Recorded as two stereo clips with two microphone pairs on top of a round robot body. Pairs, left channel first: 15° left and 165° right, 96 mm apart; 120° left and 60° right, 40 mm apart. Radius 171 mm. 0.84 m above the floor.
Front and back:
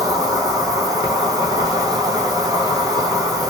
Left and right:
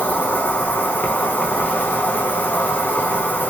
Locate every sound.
0.0 s an insect: 145° left, 0.9 m